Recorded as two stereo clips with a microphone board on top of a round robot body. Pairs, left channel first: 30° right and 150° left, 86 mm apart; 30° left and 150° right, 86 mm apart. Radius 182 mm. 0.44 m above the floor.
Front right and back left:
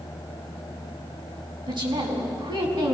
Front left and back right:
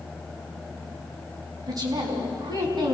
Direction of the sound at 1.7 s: 170° left.